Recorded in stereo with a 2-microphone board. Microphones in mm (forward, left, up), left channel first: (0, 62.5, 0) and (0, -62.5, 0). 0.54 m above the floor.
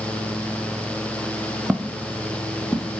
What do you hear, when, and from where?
1.7 s footsteps: 5° right (ahead or behind), 0.6 m; by 2.9 s 15° left (ahead or behind), 1.2 m